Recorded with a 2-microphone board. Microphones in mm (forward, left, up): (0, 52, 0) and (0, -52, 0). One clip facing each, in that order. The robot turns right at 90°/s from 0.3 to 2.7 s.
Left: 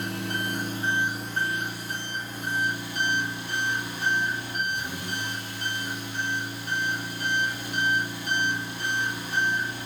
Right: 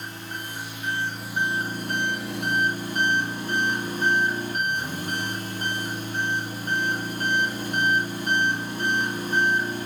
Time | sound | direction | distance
0.0 | an engine running | 100° left | 2 m